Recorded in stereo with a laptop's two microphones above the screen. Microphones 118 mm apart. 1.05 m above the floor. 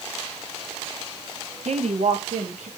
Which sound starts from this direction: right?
A woman speaking, at 1.6 s.